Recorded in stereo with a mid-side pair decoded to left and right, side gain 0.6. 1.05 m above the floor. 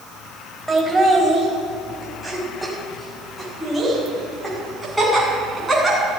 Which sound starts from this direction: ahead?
Laughter, at 0.7 s.